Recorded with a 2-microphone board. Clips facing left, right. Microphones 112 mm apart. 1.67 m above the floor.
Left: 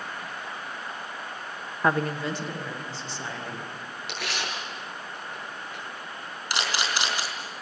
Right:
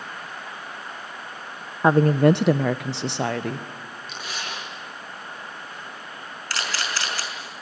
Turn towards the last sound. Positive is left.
turn(degrees=15)  # may be behind; listen again after turning